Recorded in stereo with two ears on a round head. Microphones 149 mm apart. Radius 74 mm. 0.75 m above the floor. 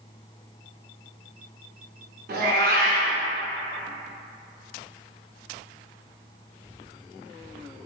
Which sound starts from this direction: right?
A cat meowing, at 2.3 s.